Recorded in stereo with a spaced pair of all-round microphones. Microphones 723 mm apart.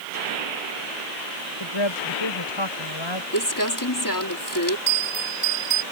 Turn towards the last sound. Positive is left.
turn(degrees=80)